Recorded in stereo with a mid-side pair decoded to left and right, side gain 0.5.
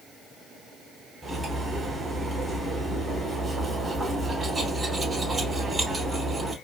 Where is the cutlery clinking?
20° right, 3 m.